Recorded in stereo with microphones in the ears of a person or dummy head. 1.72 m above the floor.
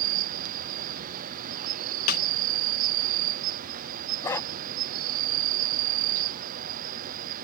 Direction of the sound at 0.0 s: 40° right (ahead or behind).